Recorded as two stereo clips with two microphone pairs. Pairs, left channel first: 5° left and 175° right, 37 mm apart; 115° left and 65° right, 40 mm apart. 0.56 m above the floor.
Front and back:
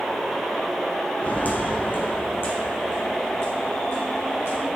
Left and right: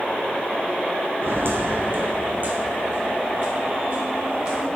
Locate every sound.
1.2 s footsteps: 45° right, 2 m; by 4.7 s straight ahead, 5 m